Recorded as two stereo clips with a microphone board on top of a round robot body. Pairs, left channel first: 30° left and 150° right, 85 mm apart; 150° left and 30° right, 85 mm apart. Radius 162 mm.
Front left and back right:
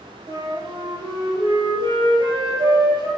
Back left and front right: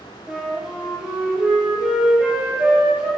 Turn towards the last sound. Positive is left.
turn(degrees=-110)